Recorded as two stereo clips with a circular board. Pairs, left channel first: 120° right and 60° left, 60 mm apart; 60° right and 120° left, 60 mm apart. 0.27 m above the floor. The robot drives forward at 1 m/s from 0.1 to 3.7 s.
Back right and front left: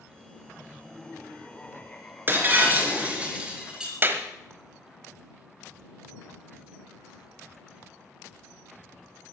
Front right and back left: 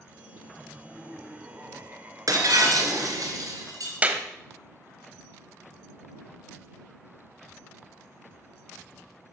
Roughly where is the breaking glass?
Behind left.